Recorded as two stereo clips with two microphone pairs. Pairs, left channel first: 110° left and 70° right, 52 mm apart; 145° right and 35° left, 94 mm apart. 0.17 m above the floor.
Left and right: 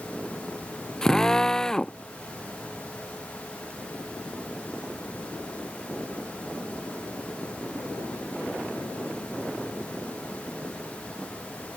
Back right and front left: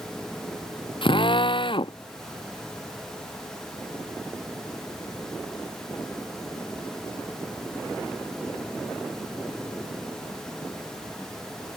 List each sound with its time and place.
1.0 s a drill: 170° right